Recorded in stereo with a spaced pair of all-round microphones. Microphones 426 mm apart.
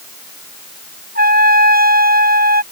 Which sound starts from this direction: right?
A trumpet, at 1.1 s.